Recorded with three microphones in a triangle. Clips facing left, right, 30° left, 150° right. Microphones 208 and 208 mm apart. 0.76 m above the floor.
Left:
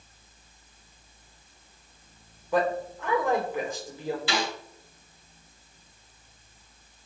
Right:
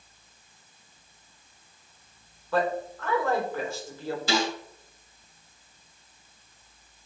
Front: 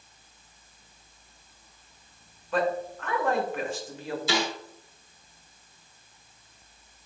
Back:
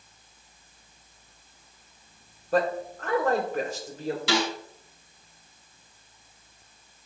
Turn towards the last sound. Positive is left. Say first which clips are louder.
# right 7 dB, back 2 dB
turn(degrees=-140)